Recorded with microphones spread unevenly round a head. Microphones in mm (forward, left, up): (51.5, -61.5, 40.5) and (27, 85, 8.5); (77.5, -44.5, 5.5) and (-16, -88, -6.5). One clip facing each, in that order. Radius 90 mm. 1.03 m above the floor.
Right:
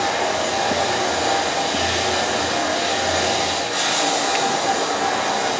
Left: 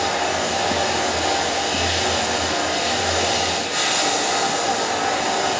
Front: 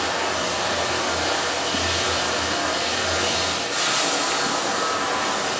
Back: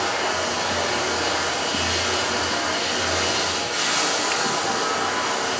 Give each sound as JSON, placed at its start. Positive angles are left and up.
{"t": 0.0, "sound": "running water", "azimuth_deg": 25, "distance_m": 1.8}